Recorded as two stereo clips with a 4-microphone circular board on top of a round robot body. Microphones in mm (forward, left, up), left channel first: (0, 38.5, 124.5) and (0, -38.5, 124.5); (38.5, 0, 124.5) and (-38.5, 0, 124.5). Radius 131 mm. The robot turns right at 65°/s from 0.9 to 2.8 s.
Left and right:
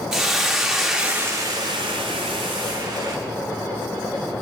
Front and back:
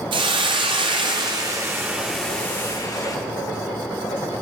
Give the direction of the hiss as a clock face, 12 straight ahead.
6 o'clock.